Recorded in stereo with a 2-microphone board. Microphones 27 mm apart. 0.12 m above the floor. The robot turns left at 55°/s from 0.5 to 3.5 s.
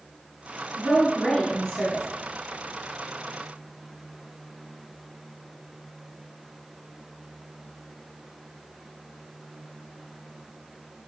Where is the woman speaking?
165° right, 1.2 m; by 2.0 s 125° left, 1.2 m.